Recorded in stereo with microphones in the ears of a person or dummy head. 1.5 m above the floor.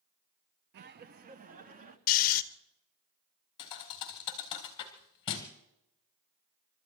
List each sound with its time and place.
0.7 s laughter: 50° right (ahead or behind), 0.6 m; by 2.0 s 40° right (ahead or behind), 1.6 m
2.1 s snoring: 50° left (ahead or behind), 0.8 m
3.6 s a thud: 20° left (ahead or behind), 1.5 m